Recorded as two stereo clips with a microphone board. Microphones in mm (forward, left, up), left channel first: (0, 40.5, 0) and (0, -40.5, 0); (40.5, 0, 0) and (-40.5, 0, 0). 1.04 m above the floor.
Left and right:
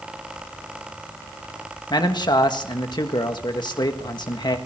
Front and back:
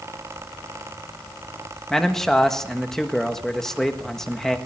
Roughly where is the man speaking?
Left.